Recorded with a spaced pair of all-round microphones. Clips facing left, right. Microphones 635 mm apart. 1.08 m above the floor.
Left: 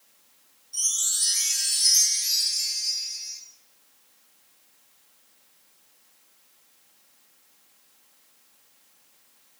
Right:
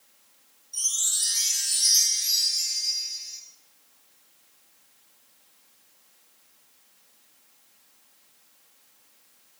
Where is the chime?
30° left (ahead or behind), 2 m.